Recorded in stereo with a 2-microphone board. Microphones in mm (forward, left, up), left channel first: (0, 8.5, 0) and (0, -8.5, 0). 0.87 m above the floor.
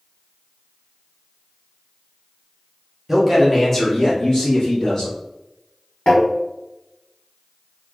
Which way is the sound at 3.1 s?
15° right (ahead or behind).